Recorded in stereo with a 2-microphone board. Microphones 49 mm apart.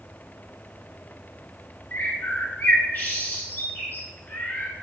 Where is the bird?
45° left (ahead or behind), 1.2 m.